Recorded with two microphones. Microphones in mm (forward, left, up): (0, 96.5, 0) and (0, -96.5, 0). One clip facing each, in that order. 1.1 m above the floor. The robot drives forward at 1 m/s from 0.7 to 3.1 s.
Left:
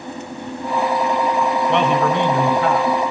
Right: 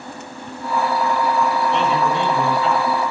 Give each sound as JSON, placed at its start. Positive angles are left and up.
{"t": 1.7, "sound": "a man speaking", "side_deg": 70, "distance_m": 4.5}